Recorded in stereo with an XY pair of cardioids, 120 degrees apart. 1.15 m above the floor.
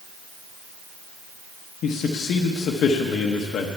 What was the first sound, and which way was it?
A man speaking, 60° left.